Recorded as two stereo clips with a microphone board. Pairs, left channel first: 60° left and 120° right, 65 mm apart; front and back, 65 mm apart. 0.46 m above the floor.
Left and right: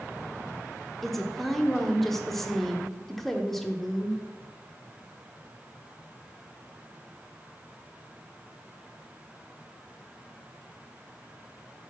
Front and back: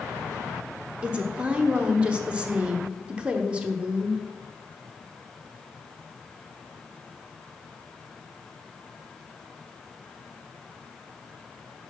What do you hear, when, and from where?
1.0 s a woman speaking: 140° left, 0.8 m